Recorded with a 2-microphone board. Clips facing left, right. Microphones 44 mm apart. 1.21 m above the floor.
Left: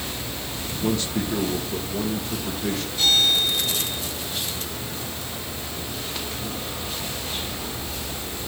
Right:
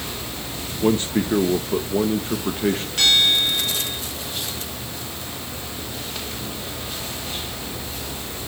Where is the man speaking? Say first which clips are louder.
Right 5 dB; 35° right (ahead or behind), 1.3 m.